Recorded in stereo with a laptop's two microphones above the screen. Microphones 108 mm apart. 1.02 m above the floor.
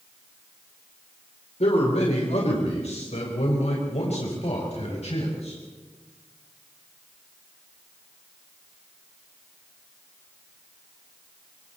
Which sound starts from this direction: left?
A man speaking, at 1.6 s.